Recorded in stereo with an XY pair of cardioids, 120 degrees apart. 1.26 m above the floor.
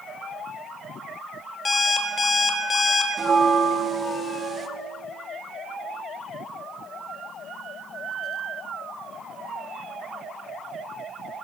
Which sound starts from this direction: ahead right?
A bell, at 3.2 s.